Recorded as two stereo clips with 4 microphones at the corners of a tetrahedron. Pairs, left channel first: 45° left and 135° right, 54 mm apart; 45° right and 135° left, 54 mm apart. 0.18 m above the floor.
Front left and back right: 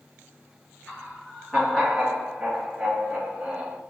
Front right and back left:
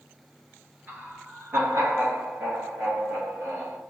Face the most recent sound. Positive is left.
turn(degrees=145)